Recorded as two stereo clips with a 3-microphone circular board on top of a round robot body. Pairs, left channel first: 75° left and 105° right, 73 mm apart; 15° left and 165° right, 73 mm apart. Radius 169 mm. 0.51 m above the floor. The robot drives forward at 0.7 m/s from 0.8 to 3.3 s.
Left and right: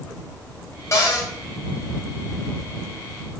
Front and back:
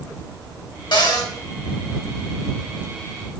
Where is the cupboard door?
25° left, 3 m.